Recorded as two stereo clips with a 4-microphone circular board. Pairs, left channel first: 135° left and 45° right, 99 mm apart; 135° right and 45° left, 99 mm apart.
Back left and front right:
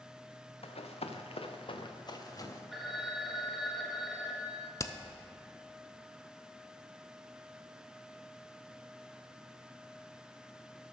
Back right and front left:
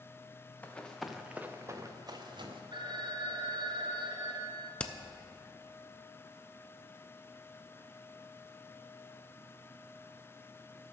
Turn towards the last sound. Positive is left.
turn(degrees=155)